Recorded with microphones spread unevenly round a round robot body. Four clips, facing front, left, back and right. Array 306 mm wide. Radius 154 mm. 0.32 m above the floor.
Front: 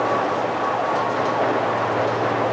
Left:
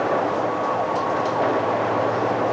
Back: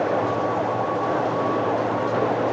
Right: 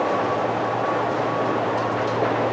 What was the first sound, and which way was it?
Only background noise.